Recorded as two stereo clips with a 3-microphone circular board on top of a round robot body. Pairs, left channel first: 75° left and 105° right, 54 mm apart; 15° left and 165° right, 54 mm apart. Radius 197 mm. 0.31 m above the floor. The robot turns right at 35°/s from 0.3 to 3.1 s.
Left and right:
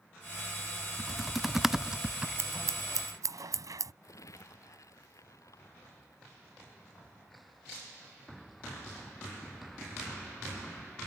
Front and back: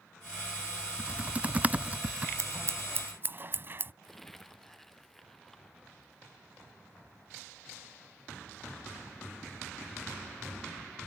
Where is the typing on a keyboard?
155° left; by 2.3 s 160° right.